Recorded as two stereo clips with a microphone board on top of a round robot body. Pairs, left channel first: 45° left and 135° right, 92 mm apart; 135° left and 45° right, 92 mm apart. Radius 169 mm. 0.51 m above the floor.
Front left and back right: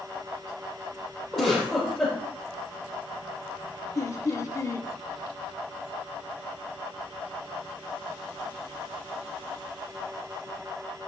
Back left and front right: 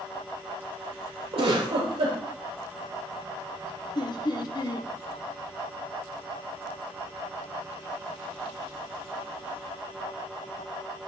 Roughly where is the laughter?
Left.